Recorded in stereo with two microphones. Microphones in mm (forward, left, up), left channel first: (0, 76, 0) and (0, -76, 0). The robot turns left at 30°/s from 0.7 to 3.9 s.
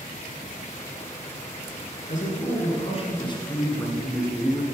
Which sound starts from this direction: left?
A man speaking, at 2.1 s.